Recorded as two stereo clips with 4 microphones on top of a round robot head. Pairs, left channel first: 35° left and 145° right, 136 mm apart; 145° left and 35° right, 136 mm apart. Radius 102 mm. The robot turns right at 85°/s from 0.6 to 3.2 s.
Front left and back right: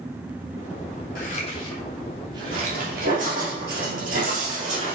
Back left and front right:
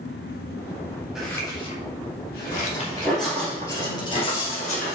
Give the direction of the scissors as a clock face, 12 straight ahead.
10 o'clock.